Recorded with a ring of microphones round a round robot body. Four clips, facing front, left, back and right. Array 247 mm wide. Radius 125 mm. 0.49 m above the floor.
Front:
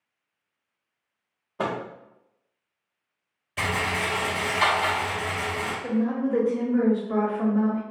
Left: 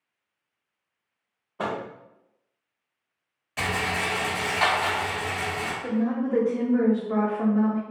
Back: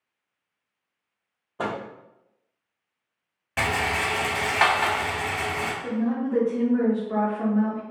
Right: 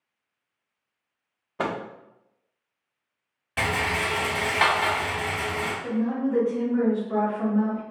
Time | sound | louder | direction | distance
1.6 | a microwave | right 1 dB, front 1 dB | 80° right | 0.5 m
3.6 | a rattle | right 2 dB, back 2 dB | 150° right | 0.7 m
5.8 | a woman speaking | left 1 dB, front 2 dB | 60° left | 0.8 m